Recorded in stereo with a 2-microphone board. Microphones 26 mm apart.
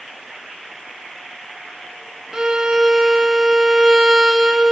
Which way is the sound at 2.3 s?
30° right (ahead or behind).